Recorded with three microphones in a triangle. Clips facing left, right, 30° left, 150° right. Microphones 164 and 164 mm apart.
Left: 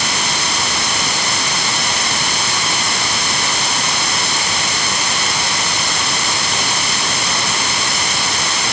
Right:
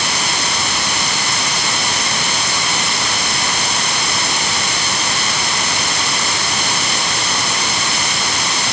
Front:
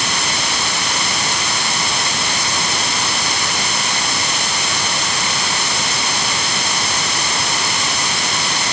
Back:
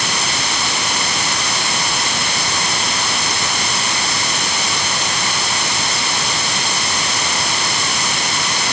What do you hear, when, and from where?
Only background noise.